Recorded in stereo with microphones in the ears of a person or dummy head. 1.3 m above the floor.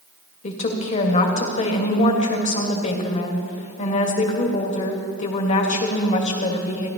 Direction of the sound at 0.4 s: 40° left (ahead or behind).